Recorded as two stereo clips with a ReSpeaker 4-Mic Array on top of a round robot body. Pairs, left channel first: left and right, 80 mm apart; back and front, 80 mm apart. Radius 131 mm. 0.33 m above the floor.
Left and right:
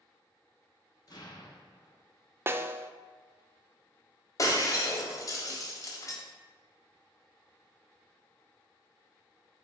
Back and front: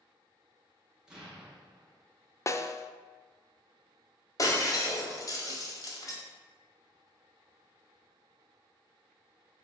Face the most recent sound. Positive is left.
turn(degrees=135)